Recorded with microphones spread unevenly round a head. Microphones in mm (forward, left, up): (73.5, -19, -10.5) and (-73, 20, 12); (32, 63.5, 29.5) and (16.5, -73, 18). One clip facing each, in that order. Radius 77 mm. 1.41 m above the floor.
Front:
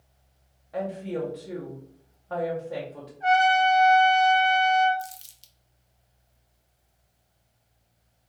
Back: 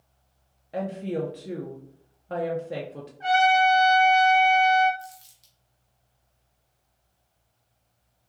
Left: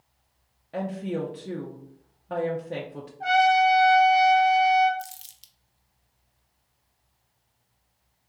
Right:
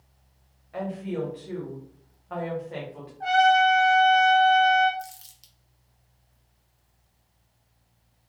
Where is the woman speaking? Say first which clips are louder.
Back 1 dB, left 1 dB; 120° left, 0.5 m.